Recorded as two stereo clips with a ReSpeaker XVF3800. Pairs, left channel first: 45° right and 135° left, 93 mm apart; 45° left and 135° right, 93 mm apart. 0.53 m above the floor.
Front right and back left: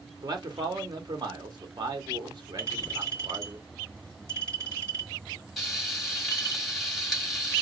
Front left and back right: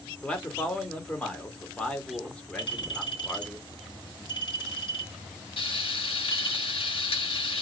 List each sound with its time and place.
0.2 s a man speaking: 120° left, 1.1 m
2.6 s a clink: 80° left, 3 m
5.6 s frying: 40° left, 1.7 m